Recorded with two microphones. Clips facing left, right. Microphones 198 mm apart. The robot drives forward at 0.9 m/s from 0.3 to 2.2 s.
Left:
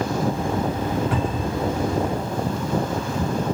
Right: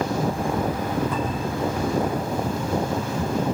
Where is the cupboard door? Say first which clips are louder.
Left 2 dB; 85° left, 5 m.